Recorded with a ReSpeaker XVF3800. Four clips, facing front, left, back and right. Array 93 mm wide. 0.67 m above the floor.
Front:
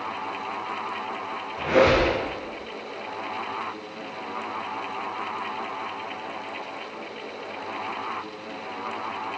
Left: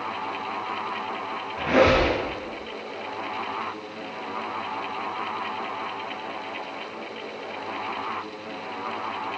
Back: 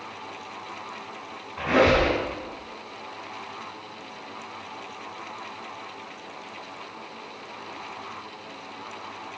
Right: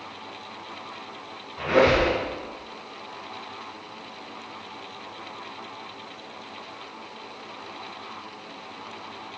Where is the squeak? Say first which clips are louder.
Even, front 1 dB; 125° left, 3 m.